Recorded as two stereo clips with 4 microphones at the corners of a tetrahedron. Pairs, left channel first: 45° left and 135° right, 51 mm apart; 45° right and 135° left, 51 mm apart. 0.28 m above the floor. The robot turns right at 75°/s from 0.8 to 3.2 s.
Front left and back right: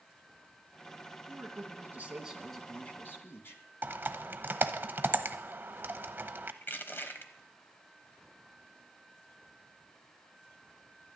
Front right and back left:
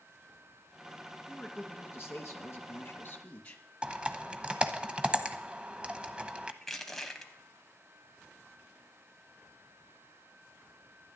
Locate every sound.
1.3 s a man speaking: 130° right, 2.5 m; by 3.6 s 15° left, 2.5 m
3.8 s typing on a keyboard: 165° right, 0.8 m
6.6 s crushing: 35° left, 1.3 m